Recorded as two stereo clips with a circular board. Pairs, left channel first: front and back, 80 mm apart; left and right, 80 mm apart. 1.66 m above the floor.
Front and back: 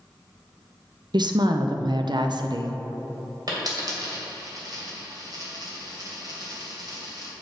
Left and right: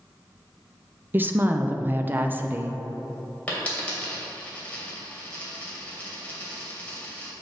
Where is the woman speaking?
155° right, 0.6 m.